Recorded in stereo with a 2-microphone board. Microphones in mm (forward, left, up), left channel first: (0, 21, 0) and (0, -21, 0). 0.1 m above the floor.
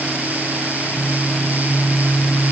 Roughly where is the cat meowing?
I don't hear a cat meowing.